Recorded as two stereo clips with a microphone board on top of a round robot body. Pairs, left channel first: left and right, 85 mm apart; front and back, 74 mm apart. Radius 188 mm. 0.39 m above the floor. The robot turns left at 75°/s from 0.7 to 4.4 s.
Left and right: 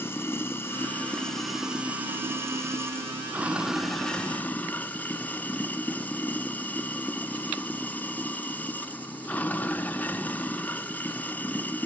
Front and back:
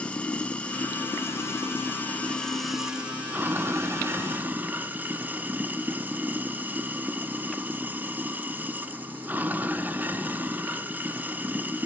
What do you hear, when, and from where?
0.0 s running water: 60° left, 0.8 m; by 11.9 s 140° left, 0.8 m